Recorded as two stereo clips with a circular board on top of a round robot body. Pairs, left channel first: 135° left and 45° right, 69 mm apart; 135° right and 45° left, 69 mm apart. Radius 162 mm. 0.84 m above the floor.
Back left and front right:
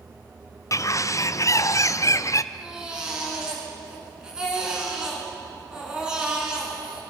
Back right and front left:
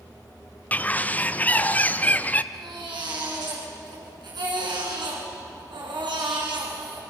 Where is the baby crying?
35° left, 5 m.